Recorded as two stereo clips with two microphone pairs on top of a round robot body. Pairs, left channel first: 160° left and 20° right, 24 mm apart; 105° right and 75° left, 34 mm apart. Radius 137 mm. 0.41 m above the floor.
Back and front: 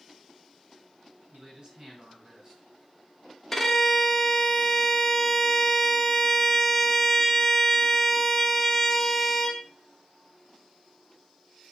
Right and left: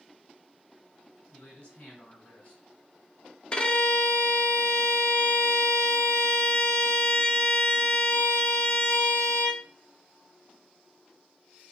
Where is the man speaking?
75° right, 3 m.